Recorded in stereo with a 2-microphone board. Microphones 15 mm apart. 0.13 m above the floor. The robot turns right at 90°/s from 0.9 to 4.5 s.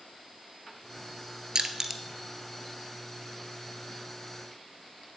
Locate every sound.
1.6 s crushing: 45° right (ahead or behind), 1.0 m; by 2.0 s 15° right (ahead or behind), 1.0 m